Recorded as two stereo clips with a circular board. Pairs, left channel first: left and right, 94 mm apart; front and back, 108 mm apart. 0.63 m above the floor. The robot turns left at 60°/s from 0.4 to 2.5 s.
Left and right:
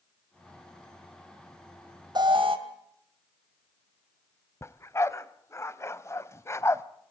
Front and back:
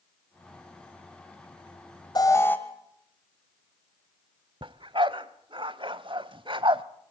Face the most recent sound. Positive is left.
turn(degrees=145)